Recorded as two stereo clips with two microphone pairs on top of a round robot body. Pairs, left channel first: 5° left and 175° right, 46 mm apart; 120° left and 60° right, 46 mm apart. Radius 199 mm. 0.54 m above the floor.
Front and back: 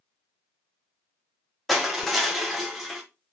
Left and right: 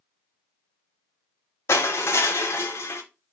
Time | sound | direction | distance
1.7 | crushing | 95° left | 1.0 m